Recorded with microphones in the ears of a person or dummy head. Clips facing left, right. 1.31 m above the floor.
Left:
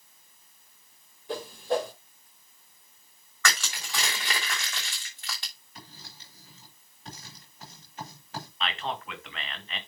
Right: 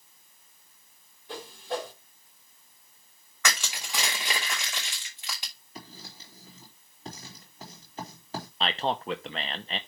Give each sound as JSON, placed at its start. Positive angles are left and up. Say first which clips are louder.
{"t": 1.3, "sound": "a whoosh", "louder": "left 6 dB", "side_deg": 45, "distance_m": 1.9}
{"t": 3.4, "sound": "crushing", "louder": "left 1 dB", "side_deg": -15, "distance_m": 2.5}
{"t": 5.8, "sound": "writing", "louder": "right 5 dB", "side_deg": -30, "distance_m": 3.5}
{"t": 8.6, "sound": "a man speaking", "louder": "right 5 dB", "side_deg": -35, "distance_m": 0.9}